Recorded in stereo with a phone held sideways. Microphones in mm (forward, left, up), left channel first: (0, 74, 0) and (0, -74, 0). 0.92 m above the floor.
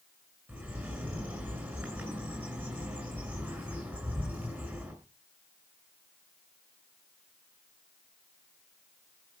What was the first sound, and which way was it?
A bird, 15° right (ahead or behind).